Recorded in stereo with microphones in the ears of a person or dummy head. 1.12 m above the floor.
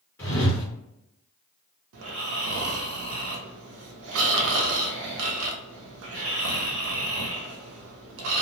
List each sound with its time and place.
0.2 s a whoosh: 10° left (ahead or behind), 1.2 m
1.9 s snoring: 65° right (ahead or behind), 0.5 m